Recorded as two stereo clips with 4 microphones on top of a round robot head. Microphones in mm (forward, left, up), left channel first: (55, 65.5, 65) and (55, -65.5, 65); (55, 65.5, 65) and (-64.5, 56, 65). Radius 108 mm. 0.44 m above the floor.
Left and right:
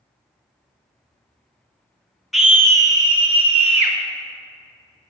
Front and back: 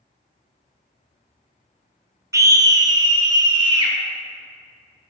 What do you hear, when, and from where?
2.3 s a scream: 175° right, 0.9 m; by 4.0 s 125° right, 1.7 m